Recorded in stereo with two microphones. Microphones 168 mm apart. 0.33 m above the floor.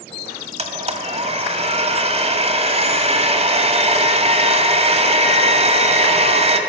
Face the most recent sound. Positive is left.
turn(degrees=-40)  # may be behind; listen again after turning